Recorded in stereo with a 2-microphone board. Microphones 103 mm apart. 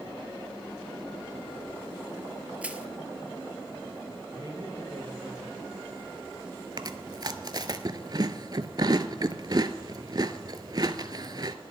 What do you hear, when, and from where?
2.6 s crushing: 15° right (ahead or behind), 0.6 m
4.3 s a man speaking: 50° right (ahead or behind), 4 m
6.8 s chewing: 45° right (ahead or behind), 0.5 m